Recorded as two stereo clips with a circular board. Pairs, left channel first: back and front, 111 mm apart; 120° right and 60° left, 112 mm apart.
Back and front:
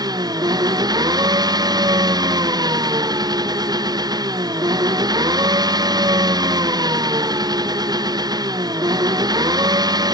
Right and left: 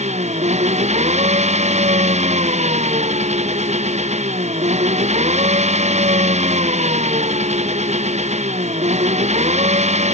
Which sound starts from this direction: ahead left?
An engine running, at 0.0 s.